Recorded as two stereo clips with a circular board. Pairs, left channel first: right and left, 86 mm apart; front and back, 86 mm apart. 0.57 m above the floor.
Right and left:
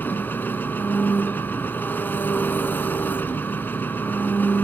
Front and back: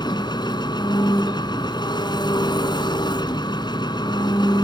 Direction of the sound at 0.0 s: 25° right.